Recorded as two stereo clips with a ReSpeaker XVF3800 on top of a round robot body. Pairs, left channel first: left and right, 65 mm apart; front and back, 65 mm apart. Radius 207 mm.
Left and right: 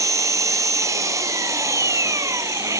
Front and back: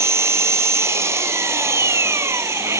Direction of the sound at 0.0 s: 130° right.